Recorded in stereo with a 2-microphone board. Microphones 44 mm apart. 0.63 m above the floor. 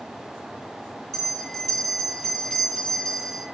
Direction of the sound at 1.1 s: 5° left (ahead or behind).